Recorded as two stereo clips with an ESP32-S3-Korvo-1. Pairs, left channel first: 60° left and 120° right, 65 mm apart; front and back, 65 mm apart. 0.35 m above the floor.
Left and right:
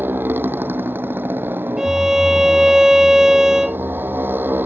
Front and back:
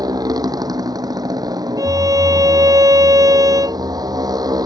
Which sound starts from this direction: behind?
A motorcycle, at 0.0 s.